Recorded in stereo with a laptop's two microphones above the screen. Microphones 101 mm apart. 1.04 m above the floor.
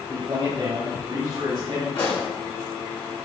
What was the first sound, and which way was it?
A man speaking, 40° right (ahead or behind).